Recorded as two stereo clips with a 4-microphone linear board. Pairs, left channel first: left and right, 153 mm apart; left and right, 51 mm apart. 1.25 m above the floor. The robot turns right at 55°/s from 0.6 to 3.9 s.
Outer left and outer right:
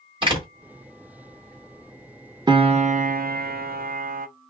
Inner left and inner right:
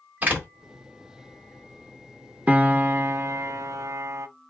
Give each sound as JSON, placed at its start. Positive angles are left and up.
{"t": 0.2, "sound": "a door slam", "side_deg": -35, "distance_m": 1.9}
{"t": 2.5, "sound": "a piano", "azimuth_deg": -150, "distance_m": 0.6}